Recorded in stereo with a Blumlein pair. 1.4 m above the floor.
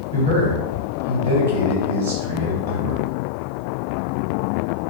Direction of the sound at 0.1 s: 55° right.